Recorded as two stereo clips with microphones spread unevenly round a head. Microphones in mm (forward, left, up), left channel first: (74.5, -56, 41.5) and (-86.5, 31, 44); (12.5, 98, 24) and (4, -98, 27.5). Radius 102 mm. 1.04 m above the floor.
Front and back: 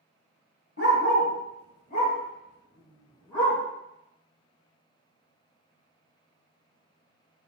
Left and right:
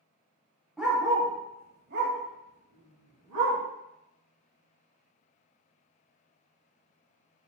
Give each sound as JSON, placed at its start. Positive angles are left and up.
{"t": 0.8, "sound": "a dog barking", "azimuth_deg": -5, "distance_m": 1.0}